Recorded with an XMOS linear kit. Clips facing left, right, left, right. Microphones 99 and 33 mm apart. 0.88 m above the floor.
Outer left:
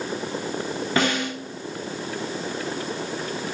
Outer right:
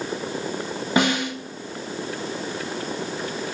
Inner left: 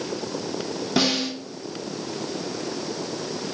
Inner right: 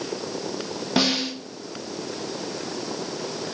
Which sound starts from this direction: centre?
A snare drum, at 1.0 s.